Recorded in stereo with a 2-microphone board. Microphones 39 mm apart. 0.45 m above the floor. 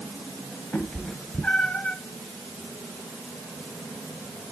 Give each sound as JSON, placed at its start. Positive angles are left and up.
{"t": 0.7, "sound": "a cat meowing", "side_deg": 40, "distance_m": 1.2}